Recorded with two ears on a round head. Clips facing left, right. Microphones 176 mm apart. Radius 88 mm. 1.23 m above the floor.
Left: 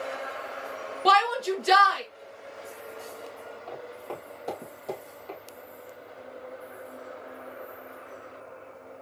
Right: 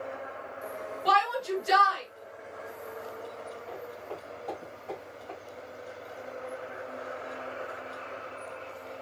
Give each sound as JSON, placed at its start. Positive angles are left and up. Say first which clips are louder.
{"t": 1.1, "sound": "a shout", "louder": "left 4 dB", "side_deg": 70, "distance_m": 2.0}
{"t": 3.7, "sound": "footsteps", "louder": "left 4 dB", "side_deg": 70, "distance_m": 3.5}